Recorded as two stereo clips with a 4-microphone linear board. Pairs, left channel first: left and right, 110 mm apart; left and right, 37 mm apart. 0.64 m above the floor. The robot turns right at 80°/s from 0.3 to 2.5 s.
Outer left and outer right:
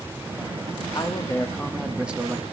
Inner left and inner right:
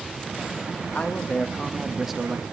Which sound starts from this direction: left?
A man speaking, at 0.9 s.